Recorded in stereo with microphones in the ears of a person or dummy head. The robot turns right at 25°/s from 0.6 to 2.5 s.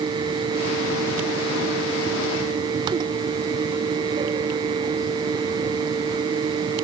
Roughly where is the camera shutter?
No camera shutter in this recording.